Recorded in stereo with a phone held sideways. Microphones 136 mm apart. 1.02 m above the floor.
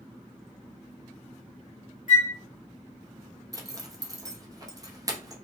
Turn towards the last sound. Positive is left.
turn(degrees=-25)  # may be behind; listen again after turning